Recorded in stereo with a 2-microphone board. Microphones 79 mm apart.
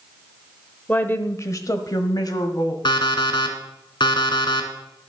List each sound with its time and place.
0.9 s a woman speaking: 20° left (ahead or behind), 0.9 m; by 2.8 s 60° left (ahead or behind), 2 m
2.9 s an alarm clock: 75° left (ahead or behind), 1.6 m